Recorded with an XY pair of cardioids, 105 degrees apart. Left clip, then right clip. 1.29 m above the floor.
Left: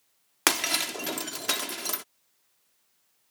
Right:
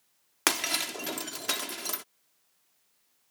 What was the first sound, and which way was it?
Breaking glass, 15° left.